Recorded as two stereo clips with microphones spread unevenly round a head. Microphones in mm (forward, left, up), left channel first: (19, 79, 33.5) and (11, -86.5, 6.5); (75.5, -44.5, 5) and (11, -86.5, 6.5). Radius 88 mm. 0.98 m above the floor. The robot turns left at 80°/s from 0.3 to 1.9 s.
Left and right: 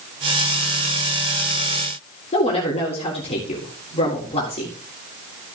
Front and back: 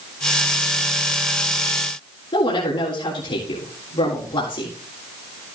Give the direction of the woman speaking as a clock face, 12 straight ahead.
11 o'clock.